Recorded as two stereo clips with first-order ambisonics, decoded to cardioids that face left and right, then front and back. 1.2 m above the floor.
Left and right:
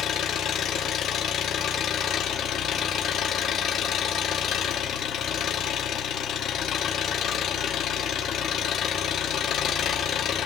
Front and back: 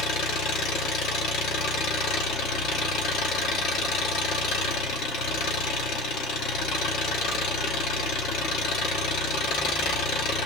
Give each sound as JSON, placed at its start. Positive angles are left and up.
{"t": 0.0, "sound": "an engine running", "azimuth_deg": 40, "distance_m": 1.5}